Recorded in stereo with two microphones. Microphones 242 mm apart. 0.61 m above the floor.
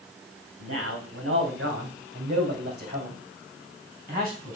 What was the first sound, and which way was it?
A man speaking, 60° right (ahead or behind).